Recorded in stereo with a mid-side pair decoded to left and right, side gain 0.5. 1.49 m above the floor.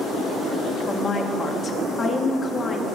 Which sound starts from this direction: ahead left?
A woman speaking, at 0.9 s.